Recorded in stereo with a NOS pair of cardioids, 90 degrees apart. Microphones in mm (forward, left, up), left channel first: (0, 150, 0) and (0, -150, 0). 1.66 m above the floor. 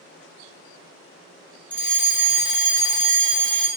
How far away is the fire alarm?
About 1.5 m.